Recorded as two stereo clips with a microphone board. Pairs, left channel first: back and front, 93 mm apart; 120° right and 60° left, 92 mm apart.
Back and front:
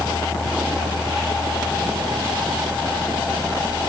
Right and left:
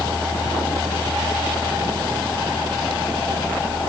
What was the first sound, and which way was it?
Only background noise.